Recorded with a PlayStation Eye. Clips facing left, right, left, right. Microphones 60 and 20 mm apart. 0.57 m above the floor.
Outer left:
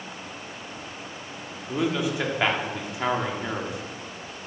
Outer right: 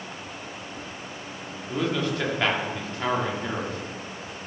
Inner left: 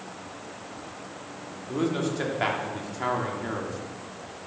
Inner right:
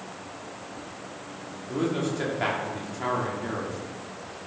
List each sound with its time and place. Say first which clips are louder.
1.7 s a man speaking: outer left 1 dB, even; 10° left (ahead or behind), 1.2 m